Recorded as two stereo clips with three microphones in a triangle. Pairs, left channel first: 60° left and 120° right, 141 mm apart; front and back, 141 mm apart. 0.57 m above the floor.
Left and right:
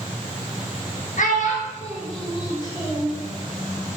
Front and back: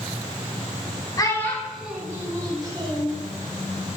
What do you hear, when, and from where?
1.2 s a child speaking: 60° left, 0.7 m; by 3.1 s 130° left, 1.3 m